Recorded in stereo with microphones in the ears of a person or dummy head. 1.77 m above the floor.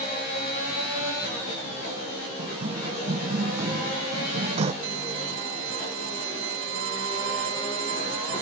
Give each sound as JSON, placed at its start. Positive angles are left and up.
{"t": 2.4, "sound": "running footsteps", "side_deg": -25}
{"t": 4.8, "sound": "a violin", "side_deg": -65}